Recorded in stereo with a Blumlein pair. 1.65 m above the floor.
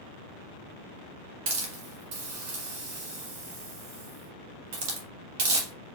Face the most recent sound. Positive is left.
turn(degrees=-45)